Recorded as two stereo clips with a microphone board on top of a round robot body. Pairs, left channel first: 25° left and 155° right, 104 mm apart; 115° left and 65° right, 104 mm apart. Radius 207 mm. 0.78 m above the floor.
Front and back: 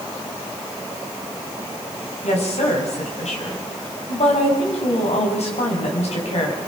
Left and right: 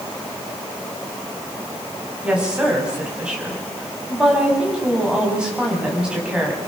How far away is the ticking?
No ticking in this recording.